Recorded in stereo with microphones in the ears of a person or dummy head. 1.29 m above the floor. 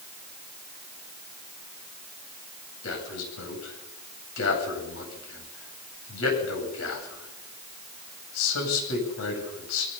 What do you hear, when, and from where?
2.8 s a man speaking: 85° left, 9 m